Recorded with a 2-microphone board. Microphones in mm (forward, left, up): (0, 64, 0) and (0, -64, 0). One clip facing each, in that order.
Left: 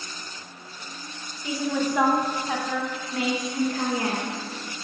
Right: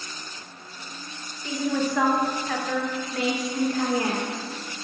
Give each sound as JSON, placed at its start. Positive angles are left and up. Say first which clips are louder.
{"t": 1.4, "sound": "a woman speaking", "louder": "even", "side_deg": 10, "distance_m": 1.1}